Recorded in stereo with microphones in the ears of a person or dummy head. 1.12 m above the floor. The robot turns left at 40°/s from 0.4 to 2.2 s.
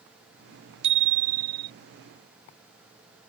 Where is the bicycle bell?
40° right; by 1.7 s 75° right.